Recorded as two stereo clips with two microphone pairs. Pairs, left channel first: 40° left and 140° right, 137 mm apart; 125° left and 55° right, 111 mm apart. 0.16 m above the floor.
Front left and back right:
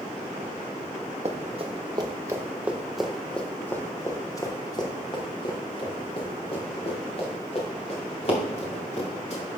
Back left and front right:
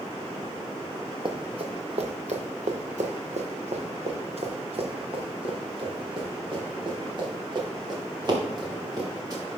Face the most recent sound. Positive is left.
turn(degrees=0)